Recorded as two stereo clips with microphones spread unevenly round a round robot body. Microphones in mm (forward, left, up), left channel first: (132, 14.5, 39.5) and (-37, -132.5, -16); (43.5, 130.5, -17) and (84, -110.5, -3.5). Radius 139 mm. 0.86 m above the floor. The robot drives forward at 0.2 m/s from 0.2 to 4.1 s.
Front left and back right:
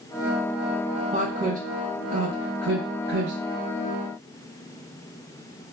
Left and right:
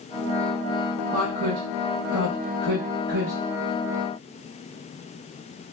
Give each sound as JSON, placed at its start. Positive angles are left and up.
{"t": 1.1, "sound": "a woman speaking", "azimuth_deg": -90, "distance_m": 0.6}